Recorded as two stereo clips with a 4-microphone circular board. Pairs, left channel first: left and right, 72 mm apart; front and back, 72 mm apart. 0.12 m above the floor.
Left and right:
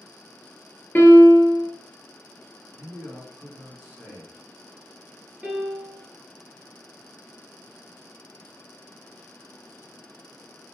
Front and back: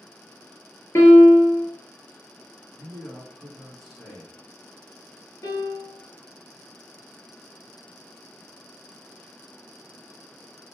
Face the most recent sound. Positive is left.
turn(degrees=-10)